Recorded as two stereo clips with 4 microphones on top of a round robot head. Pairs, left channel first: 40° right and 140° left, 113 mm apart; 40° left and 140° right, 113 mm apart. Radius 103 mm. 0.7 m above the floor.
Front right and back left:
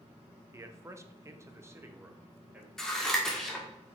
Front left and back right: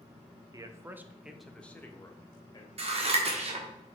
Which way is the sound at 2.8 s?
125° right.